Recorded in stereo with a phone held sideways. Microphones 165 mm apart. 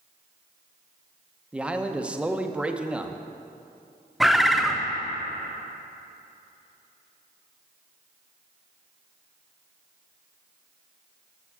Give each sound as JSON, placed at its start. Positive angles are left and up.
{"t": 1.5, "sound": "a man speaking", "side_deg": -5, "distance_m": 0.7}
{"t": 4.2, "sound": "a bird", "side_deg": 0, "distance_m": 0.6}